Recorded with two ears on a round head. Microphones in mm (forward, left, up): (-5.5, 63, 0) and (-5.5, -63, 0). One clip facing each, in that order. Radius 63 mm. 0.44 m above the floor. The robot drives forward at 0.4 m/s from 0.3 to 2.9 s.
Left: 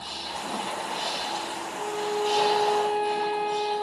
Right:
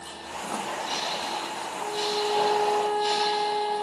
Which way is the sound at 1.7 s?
60° left (ahead or behind).